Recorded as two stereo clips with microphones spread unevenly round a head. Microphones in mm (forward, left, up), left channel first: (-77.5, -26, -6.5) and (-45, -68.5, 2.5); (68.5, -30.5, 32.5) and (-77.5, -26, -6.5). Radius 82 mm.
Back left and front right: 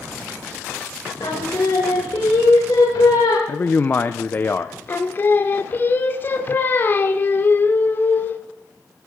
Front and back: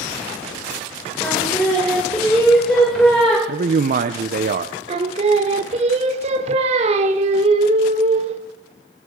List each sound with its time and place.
1.2 s singing: 80° left, 2.5 m
3.5 s a man speaking: 175° left, 0.6 m
4.9 s singing: 150° left, 0.9 m